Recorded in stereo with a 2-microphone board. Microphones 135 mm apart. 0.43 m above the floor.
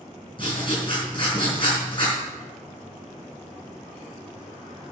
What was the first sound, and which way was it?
Writing, 35° left (ahead or behind).